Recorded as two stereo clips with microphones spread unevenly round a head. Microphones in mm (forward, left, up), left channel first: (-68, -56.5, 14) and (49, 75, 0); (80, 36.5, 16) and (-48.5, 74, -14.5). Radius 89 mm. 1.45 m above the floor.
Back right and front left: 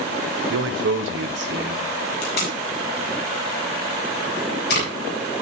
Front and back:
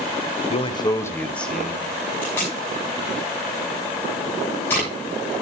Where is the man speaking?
30° left, 1.0 m; by 1.9 s 80° left, 2.0 m.